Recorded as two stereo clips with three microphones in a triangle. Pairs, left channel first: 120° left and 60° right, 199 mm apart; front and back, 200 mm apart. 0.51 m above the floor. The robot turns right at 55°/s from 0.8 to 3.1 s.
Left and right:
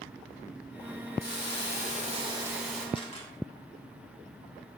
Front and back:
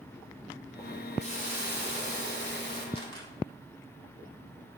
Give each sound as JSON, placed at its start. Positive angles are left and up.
{"t": 1.2, "sound": "a hiss", "azimuth_deg": -55, "distance_m": 2.5}
{"t": 3.0, "sound": "a camera shutter", "azimuth_deg": 60, "distance_m": 1.9}